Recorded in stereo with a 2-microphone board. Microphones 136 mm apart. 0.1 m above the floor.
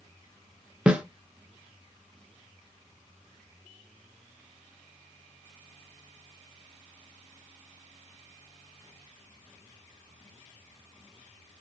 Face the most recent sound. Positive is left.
turn(degrees=-10)  # may be behind; listen again after turning